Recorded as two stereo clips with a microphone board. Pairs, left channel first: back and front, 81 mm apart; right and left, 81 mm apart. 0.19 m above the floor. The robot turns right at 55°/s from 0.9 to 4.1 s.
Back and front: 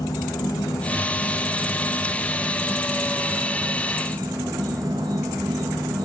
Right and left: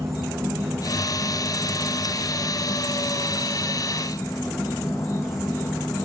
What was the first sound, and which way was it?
An insect, 145° left.